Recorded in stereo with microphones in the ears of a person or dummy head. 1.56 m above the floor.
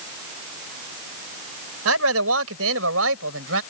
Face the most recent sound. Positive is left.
turn(degrees=-80)